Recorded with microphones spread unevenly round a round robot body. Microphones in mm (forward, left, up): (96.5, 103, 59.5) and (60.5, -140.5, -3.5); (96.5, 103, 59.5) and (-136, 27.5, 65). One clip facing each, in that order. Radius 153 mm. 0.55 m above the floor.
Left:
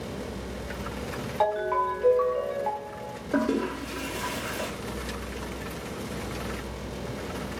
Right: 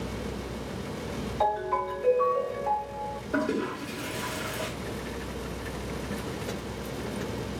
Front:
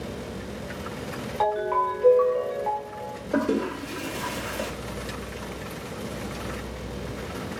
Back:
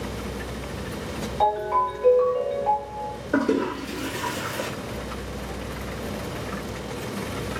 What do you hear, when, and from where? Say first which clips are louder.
1.4 s a ringtone: left 4 dB, front 1 dB; 60° left, 1.2 m
3.3 s a toilet flushing: left 3 dB, back 2 dB; 145° left, 1.5 m